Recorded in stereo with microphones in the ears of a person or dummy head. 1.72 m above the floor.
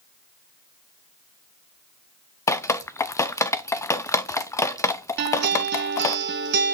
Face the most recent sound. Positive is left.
turn(degrees=-55)  # may be behind; listen again after turning